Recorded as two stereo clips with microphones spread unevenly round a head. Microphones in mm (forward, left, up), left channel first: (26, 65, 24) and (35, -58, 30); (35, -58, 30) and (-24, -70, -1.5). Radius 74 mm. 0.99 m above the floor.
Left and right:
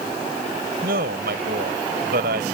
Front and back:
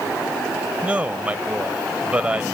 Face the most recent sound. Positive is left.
turn(degrees=-100)